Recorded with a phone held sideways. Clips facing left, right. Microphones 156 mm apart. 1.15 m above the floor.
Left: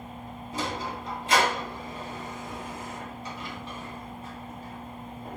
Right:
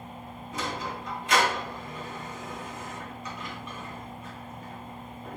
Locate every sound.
0.5 s a sliding door: 30° left (ahead or behind), 2 m